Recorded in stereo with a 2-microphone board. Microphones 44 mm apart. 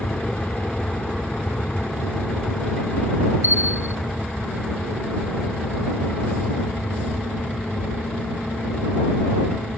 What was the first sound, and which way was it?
An aircraft, 30° left (ahead or behind).